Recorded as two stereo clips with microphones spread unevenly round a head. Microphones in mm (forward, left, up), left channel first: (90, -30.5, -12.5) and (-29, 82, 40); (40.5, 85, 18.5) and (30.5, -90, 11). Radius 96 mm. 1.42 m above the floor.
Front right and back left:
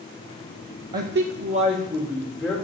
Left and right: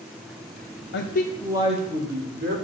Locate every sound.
0.9 s a man speaking: 85° left, 0.7 m; by 2.5 s 135° right, 1.9 m